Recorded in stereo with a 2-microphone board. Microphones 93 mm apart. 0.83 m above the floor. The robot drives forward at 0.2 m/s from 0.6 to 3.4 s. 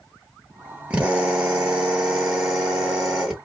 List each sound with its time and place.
0.9 s a drill: 15° right (ahead or behind), 1.0 m; by 3.4 s 10° right (ahead or behind), 1.4 m